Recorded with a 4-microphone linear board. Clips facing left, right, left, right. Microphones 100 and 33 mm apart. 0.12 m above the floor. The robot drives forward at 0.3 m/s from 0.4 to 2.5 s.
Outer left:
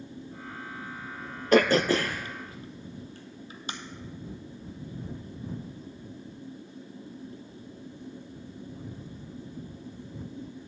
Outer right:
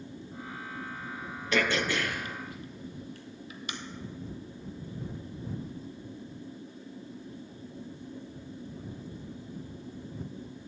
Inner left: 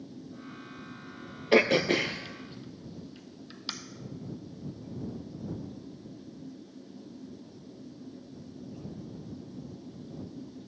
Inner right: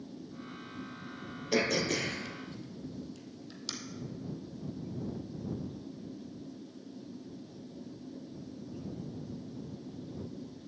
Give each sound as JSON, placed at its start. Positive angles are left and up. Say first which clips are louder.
{"t": 1.5, "sound": "throat clearing", "louder": "outer left 8 dB, inner left 7 dB", "side_deg": 45, "distance_m": 0.6}